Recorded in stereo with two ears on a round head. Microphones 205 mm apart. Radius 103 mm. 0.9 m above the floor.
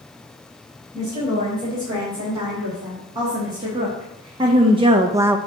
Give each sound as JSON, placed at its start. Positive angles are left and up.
{"t": 0.9, "sound": "a woman speaking", "side_deg": -20, "distance_m": 4.0}